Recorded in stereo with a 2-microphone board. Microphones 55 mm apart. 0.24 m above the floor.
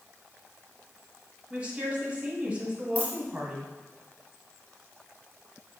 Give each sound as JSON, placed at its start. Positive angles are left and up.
{"t": 1.5, "sound": "a woman speaking", "side_deg": -20, "distance_m": 2.0}
{"t": 3.0, "sound": "a dropped coin", "side_deg": 25, "distance_m": 2.0}